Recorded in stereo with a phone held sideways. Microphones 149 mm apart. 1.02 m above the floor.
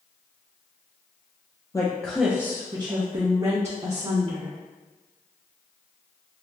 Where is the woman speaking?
25° left (ahead or behind), 0.5 m; by 4.5 s 55° right (ahead or behind), 1.4 m.